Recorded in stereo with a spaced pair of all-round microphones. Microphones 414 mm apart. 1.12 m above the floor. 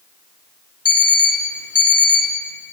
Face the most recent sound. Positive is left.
turn(degrees=35)  # may be behind; listen again after turning